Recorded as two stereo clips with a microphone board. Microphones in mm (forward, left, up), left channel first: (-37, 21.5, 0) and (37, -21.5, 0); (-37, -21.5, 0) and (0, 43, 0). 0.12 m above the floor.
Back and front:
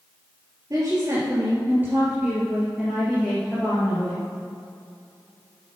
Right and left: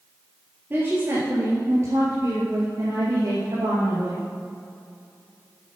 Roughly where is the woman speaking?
Ahead.